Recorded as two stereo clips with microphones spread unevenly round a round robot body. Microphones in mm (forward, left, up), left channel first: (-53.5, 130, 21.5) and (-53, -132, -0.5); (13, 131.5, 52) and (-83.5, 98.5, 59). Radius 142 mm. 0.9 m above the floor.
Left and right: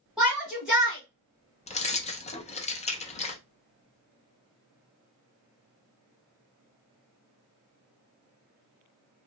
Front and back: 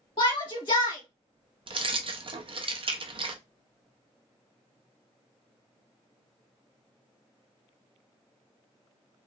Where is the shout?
5° right, 1.7 m.